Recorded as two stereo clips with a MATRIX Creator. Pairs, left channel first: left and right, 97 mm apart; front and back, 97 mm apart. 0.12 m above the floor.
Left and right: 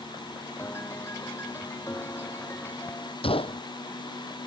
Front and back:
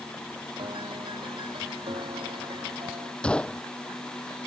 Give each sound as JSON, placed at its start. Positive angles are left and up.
{"t": 0.6, "sound": "a piano", "azimuth_deg": 155}
{"t": 3.2, "sound": "a gunshot", "azimuth_deg": 80}